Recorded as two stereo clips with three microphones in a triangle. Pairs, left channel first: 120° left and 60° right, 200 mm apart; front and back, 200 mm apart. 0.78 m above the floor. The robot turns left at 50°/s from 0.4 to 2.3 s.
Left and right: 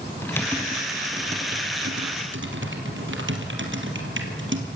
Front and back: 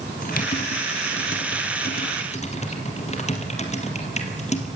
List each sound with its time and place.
0.2 s typing on a keyboard: 40° left, 3.5 m; by 4.7 s 55° right, 3.5 m